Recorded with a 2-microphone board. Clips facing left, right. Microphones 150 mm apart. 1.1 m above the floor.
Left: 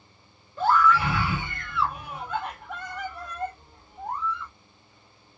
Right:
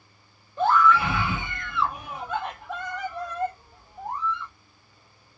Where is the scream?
20° right (ahead or behind), 1.7 m.